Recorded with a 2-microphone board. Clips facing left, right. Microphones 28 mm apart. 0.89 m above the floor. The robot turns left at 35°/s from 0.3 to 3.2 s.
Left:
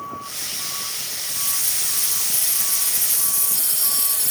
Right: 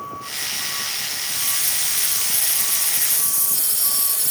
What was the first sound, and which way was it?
A hiss, 125° left.